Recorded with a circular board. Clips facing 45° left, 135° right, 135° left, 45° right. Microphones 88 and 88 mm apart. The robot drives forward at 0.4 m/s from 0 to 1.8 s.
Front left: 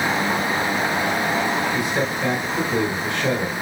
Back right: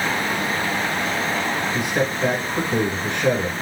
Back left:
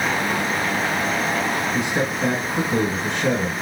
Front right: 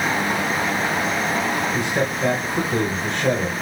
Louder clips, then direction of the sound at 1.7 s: Even, even; straight behind.